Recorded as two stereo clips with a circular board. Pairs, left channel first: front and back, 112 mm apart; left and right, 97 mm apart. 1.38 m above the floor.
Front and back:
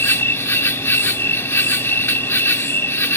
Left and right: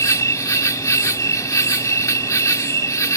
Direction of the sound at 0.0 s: 55° left.